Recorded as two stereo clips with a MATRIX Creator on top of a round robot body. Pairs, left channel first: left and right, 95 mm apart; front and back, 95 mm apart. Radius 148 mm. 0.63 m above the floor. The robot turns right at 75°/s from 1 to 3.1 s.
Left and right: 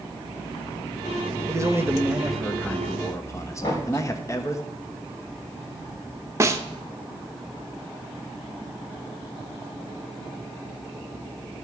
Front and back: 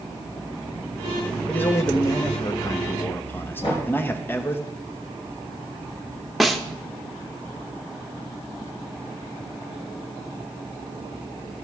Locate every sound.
1.5 s a man speaking: 65° right, 1.2 m; by 4.6 s 55° left, 1.2 m
3.6 s knocking: 35° left, 3.5 m
6.4 s a snare drum: 90° right, 0.9 m